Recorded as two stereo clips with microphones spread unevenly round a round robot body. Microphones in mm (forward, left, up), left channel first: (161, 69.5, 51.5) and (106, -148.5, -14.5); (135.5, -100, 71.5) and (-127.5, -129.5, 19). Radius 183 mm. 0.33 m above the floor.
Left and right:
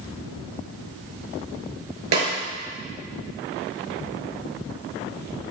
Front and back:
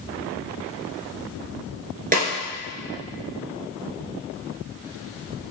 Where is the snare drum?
115° right, 2.5 m.